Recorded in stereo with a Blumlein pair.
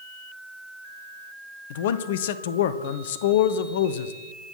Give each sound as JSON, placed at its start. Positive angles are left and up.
{"t": 1.7, "sound": "a man speaking", "azimuth_deg": 55, "distance_m": 1.1}